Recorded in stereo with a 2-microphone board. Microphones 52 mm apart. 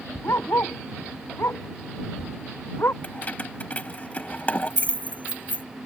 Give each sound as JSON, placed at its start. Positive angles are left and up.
{"t": 0.2, "sound": "a dog barking", "side_deg": 55}
{"t": 3.0, "sound": "keys jangling", "side_deg": 30}